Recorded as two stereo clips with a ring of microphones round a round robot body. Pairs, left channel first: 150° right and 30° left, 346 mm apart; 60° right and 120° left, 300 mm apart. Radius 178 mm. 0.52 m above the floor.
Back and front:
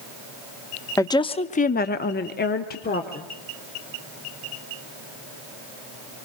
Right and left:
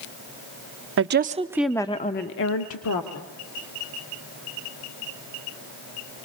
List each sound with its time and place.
1.0 s a woman speaking: 135° left, 0.8 m; by 3.3 s 85° right, 1.4 m